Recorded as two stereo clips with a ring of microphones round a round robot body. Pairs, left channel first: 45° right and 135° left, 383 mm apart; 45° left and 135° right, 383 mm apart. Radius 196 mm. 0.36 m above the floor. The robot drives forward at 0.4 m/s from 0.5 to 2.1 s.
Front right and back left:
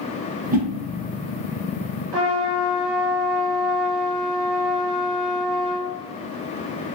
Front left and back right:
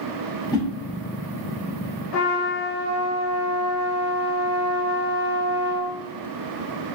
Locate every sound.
0.5 s a whoosh: 105° left, 0.7 m; by 0.7 s 120° left, 0.7 m
2.1 s a trumpet: 105° left, 1.0 m